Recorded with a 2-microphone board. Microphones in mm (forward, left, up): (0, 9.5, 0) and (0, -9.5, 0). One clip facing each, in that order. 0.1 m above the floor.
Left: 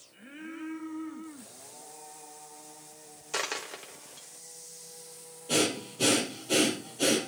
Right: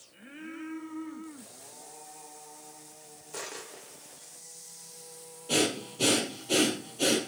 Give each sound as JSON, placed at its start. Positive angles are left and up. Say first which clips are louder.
{"t": 3.3, "sound": "a dropped coin", "louder": "left 7 dB", "side_deg": 60, "distance_m": 1.7}
{"t": 5.5, "sound": "breathing", "louder": "even", "side_deg": -5, "distance_m": 2.5}